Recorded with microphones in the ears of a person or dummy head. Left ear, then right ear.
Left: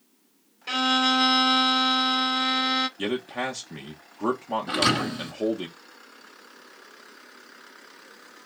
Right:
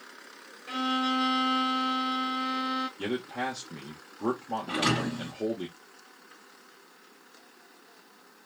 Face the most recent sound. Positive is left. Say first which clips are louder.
# left 4 dB
turn(degrees=40)  # may be behind; listen again after turning